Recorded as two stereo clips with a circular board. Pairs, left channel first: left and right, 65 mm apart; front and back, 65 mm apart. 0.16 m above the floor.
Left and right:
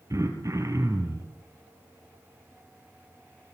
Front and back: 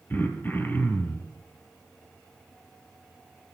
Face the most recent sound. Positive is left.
turn(degrees=-60)